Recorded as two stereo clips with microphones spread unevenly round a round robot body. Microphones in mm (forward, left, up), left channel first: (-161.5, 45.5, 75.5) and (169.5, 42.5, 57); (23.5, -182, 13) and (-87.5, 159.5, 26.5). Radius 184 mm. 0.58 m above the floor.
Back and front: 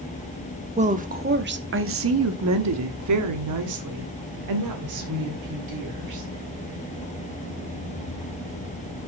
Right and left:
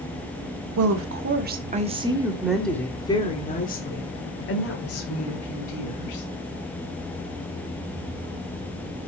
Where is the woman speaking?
65° left, 1.6 m; by 6.2 s 30° right, 3 m.